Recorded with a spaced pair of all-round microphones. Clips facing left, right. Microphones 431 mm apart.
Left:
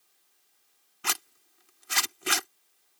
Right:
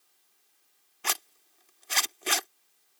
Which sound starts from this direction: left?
A zipper, at 1.0 s.